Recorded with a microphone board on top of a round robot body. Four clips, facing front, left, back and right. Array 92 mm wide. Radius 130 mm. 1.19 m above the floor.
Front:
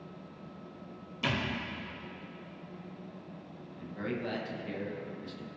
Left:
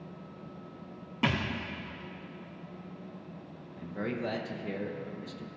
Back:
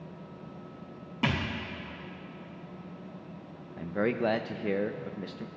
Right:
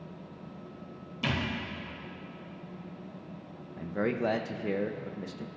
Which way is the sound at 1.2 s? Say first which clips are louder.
Left 2 dB, back 3 dB; 130° left.